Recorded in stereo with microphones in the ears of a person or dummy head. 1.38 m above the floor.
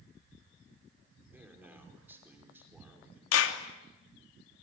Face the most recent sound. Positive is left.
turn(degrees=80)